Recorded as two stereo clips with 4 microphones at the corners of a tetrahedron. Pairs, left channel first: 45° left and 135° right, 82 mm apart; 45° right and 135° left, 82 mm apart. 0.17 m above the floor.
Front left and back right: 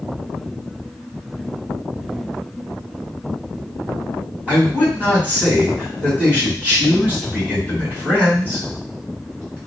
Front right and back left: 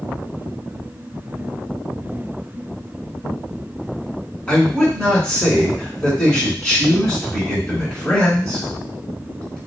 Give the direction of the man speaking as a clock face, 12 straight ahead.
3 o'clock.